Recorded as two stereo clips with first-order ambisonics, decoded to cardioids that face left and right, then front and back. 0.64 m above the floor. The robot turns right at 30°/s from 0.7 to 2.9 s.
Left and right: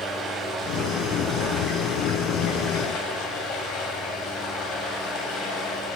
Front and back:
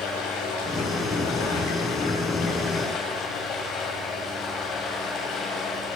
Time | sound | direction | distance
0.0 | running water | 20° right | 2.5 m